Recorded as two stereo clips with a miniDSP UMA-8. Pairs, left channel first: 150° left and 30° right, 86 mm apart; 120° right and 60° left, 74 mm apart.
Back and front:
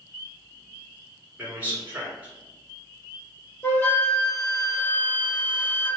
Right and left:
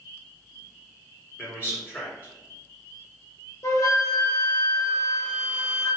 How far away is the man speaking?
About 1.7 m.